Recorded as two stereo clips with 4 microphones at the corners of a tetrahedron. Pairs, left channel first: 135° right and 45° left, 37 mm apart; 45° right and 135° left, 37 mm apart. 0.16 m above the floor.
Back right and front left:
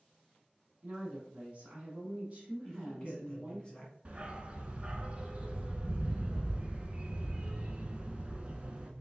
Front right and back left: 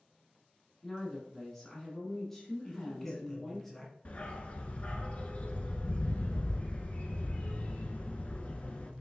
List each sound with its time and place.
0.8 s a woman speaking: 30° left, 1.3 m
2.6 s a man speaking: 115° right, 1.8 m
4.0 s a dog barking: 5° right, 0.6 m